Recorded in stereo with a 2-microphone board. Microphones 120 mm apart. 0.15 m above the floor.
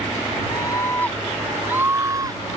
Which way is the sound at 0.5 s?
35° left (ahead or behind).